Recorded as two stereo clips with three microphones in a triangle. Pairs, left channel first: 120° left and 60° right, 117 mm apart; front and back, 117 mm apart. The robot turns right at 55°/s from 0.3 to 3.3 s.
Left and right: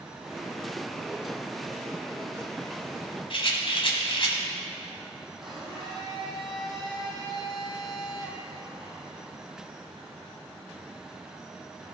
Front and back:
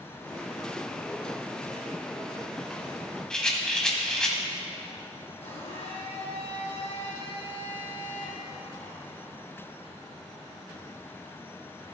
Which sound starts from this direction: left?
A rattle, at 3.3 s.